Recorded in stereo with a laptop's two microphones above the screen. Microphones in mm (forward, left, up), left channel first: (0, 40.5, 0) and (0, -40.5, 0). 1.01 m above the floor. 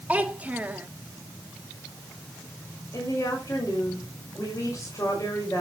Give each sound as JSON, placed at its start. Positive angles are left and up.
{"t": 0.1, "sound": "a child speaking", "side_deg": -20, "distance_m": 1.9}
{"t": 2.9, "sound": "a woman speaking", "side_deg": 40, "distance_m": 5.5}